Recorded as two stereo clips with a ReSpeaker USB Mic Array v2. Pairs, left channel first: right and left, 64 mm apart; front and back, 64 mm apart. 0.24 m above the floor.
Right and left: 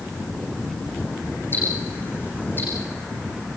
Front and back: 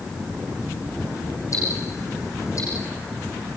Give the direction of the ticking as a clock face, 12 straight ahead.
1 o'clock.